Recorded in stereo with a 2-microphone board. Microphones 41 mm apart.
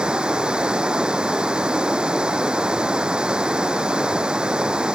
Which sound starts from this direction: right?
Running water, at 0.0 s.